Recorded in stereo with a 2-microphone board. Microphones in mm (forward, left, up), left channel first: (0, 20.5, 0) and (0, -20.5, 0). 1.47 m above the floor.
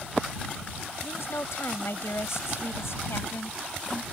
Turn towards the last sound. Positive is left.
turn(degrees=85)